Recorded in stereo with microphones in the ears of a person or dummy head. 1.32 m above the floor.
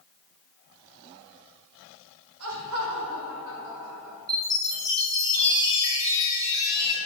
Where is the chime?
20° right (ahead or behind), 2.5 m.